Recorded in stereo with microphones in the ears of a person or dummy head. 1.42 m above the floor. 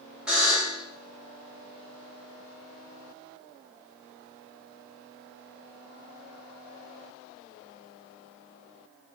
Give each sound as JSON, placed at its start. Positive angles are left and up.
{"t": 0.3, "sound": "a buzzer", "side_deg": -5, "distance_m": 0.8}